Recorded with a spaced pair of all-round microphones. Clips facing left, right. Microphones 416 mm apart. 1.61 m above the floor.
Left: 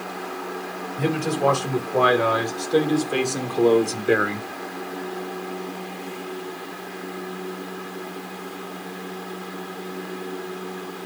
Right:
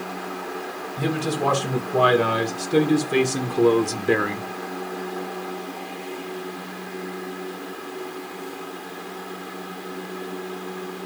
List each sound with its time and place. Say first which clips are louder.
1.0 s a man speaking: left 2 dB; 55° right (ahead or behind), 3 m; by 4.5 s 5° left (ahead or behind), 0.9 m